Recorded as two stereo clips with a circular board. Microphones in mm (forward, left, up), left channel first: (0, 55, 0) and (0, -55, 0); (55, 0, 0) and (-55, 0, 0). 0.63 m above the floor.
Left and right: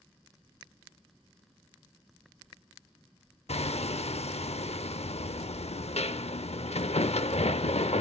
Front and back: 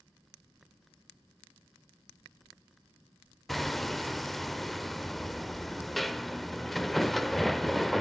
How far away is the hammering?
About 0.6 m.